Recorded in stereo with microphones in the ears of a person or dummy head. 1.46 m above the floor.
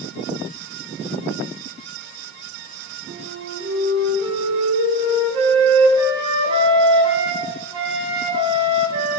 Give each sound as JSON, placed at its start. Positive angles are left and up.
{"t": 3.1, "sound": "a flute", "side_deg": -30, "distance_m": 5.0}